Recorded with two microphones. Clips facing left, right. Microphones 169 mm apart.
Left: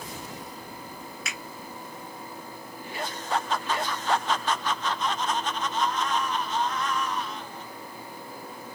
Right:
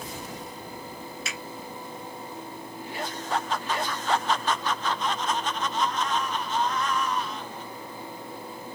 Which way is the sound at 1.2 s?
30° right (ahead or behind).